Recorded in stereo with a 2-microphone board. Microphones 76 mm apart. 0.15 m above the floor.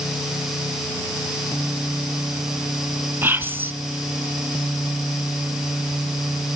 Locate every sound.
3.2 s whispering: 30° right (ahead or behind), 1.4 m